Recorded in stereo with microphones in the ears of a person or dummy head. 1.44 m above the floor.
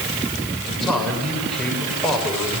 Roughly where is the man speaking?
Centre.